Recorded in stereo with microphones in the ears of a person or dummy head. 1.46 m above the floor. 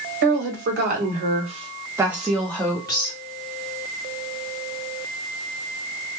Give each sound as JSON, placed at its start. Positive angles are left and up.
{"t": 0.2, "sound": "a woman speaking", "side_deg": -65, "distance_m": 1.3}